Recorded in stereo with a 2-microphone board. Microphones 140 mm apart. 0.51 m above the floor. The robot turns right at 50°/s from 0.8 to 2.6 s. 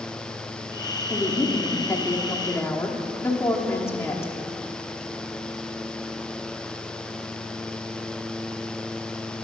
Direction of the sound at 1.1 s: 15° left (ahead or behind).